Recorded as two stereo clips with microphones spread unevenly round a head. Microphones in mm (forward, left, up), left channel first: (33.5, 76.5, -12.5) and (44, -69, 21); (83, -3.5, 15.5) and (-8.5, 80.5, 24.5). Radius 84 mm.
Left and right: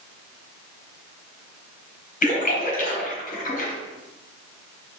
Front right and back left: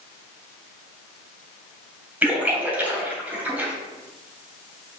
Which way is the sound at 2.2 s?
60° left.